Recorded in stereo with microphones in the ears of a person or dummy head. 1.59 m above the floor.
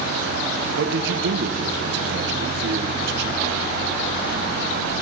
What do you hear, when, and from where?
0.8 s a man speaking: 70° right (ahead or behind), 1.6 m